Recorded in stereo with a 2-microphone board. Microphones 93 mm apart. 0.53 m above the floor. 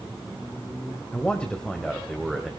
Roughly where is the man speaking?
Centre.